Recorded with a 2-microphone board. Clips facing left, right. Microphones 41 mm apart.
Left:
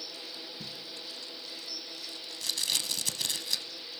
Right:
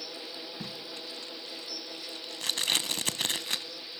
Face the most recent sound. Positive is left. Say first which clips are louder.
# right 3 dB
turn(degrees=-45)  # may be behind; listen again after turning